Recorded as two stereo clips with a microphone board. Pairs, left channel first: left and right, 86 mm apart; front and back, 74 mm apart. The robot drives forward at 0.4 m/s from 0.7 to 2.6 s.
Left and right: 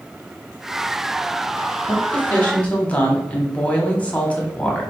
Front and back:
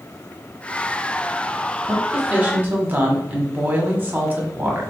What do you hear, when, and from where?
1.8 s a woman speaking: 120° left, 1.0 m; by 4.9 s 145° left, 1.1 m